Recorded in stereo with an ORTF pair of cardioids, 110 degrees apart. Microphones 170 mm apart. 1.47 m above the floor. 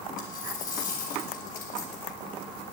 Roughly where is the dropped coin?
Ahead left.